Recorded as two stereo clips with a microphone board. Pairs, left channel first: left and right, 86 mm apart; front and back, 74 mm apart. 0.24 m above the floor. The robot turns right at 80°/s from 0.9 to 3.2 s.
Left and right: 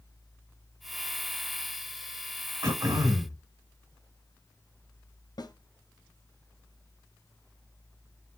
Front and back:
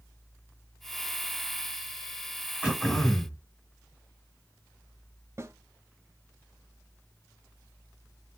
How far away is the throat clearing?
About 1.5 m.